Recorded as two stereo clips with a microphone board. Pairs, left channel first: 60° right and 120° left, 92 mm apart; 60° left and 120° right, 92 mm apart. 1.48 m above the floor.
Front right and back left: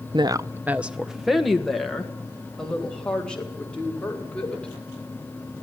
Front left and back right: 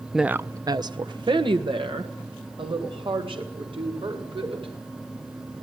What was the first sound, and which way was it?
A woman speaking, 150° left.